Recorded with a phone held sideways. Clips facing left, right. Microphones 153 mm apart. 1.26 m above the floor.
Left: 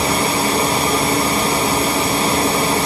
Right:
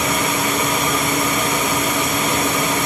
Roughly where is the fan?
Left.